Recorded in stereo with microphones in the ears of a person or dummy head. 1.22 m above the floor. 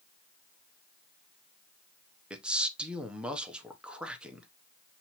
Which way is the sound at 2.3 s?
5° right (ahead or behind).